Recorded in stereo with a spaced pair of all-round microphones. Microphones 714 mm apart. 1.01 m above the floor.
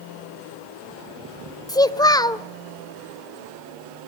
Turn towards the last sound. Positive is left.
turn(degrees=5)  # may be behind; listen again after turning